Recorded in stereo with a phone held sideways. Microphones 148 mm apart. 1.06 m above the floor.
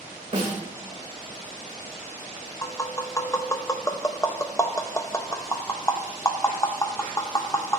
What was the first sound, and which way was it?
A snare drum, 55° right (ahead or behind).